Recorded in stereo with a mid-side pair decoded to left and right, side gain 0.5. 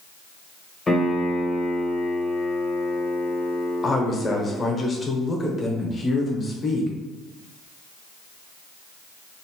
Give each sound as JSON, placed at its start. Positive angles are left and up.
{"t": 0.9, "sound": "a piano", "azimuth_deg": 25, "distance_m": 0.9}
{"t": 3.8, "sound": "a woman speaking", "azimuth_deg": 30, "distance_m": 0.9}